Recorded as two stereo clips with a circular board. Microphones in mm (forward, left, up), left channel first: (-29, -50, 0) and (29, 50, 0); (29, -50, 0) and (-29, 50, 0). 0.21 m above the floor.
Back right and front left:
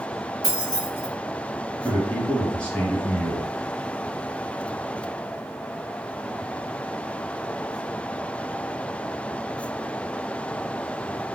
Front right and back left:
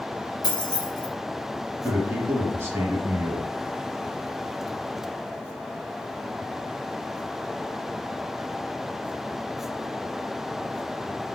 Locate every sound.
0.4 s keys jangling: 75° right, 1.2 m
1.8 s a man speaking: 170° left, 1.1 m